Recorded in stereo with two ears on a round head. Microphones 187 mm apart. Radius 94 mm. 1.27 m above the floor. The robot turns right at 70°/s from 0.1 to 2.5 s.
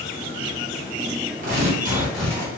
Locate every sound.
1.4 s tearing paper: 50° right, 1.2 m; by 2.5 s 20° left, 1.2 m